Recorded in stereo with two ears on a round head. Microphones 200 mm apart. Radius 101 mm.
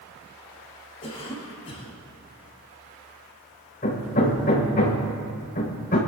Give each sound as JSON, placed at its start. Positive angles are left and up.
{"t": 1.0, "sound": "a cough", "side_deg": 30, "distance_m": 3.5}
{"t": 3.8, "sound": "hammering", "side_deg": 45, "distance_m": 4.5}